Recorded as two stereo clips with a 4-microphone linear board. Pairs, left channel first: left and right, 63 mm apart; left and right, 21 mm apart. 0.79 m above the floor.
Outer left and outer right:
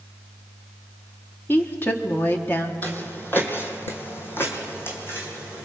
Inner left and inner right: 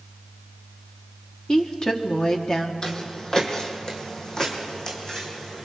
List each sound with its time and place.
1.5 s a woman speaking: 35° left (ahead or behind), 1.6 m
2.8 s footsteps: 30° left (ahead or behind), 1.9 m; by 5.7 s 35° left (ahead or behind), 3.5 m